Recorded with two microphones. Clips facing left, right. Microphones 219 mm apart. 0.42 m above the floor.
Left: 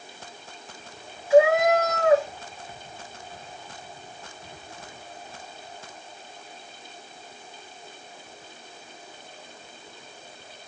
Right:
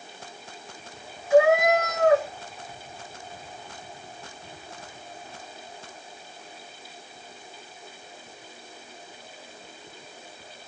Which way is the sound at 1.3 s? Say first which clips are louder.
Left 1 dB; 50° right (ahead or behind).